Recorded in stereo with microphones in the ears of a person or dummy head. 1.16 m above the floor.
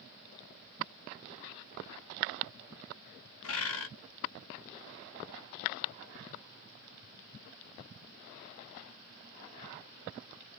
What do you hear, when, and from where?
3.4 s a bird: 65° left (ahead or behind), 0.7 m